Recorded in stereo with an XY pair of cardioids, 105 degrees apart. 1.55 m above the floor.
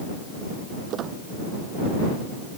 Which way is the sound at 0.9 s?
65° right.